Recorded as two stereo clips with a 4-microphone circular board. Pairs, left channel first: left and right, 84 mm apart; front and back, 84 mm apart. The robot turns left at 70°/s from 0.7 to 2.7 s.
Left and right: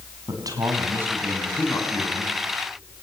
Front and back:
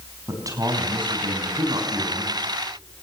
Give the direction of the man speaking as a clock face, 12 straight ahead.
4 o'clock.